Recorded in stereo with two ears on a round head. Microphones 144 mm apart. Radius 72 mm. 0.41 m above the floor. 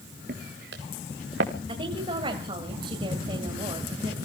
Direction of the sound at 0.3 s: 60° right (ahead or behind).